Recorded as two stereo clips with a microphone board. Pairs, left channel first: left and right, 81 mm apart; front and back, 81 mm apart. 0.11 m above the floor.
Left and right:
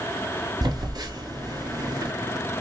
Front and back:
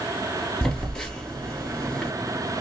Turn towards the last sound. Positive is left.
turn(degrees=-80)